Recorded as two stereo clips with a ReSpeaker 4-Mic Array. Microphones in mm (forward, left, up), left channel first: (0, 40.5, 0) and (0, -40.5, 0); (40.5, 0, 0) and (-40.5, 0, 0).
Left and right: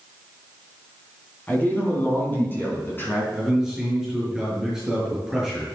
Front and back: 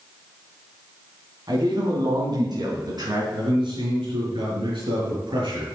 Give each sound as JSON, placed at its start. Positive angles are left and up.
{"t": 1.5, "sound": "a man speaking", "azimuth_deg": 155, "distance_m": 3.5}
{"t": 3.3, "sound": "a man speaking", "azimuth_deg": -175, "distance_m": 5.5}